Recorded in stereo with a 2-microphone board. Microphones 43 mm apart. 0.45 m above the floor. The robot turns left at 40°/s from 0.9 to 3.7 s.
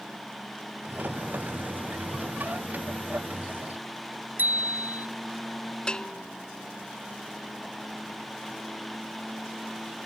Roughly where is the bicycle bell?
Right.